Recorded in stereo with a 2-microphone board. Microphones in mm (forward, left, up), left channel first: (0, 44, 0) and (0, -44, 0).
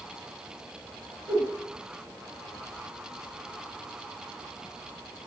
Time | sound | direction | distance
1.3 | a whoosh | 15° right (ahead or behind) | 5.5 m